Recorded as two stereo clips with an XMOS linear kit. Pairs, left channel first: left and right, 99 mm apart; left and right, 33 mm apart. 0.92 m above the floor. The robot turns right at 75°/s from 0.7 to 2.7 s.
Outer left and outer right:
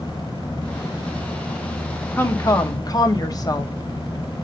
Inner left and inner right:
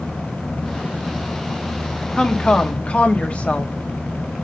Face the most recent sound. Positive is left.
turn(degrees=75)